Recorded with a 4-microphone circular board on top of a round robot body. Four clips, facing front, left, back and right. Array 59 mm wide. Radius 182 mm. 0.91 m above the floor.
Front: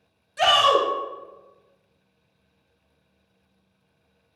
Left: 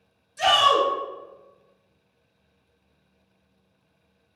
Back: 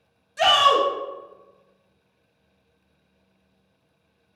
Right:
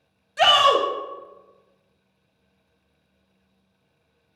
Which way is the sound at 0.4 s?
85° right.